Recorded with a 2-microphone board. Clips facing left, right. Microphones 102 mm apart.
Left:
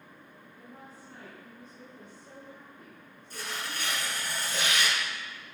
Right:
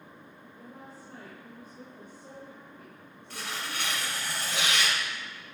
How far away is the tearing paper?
About 4.5 m.